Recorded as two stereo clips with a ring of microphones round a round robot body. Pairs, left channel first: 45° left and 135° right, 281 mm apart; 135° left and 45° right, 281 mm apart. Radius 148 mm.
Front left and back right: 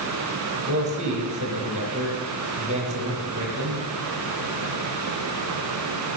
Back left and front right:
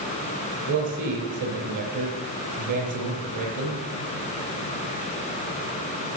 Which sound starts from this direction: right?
A man speaking, at 0.7 s.